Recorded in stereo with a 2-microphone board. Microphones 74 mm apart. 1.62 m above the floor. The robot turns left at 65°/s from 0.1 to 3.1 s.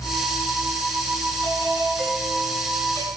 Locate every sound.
1.4 s a doorbell: 130° right, 9 m; by 3.1 s 120° left, 9 m